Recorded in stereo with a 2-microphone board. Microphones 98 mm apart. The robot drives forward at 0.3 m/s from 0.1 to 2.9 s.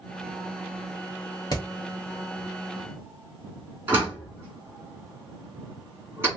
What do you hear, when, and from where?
1.5 s hammering: 45° left (ahead or behind), 1.3 m
3.9 s a door slam: 20° right (ahead or behind), 3 m